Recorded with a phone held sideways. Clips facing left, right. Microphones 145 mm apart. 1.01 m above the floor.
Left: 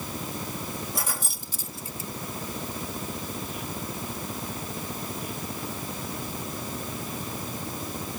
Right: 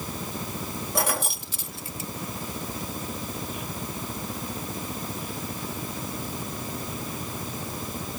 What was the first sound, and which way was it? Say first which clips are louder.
Keys jangling: right 7 dB; 70° right (ahead or behind).